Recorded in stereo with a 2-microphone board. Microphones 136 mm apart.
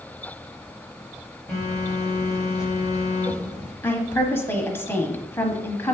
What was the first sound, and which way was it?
A phone buzzing, 5° right (ahead or behind).